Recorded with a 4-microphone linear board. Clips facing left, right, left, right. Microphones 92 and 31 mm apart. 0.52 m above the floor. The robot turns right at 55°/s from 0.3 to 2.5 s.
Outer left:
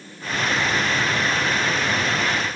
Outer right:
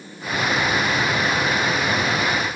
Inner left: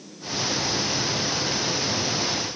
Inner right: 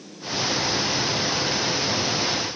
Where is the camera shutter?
I don't hear a camera shutter.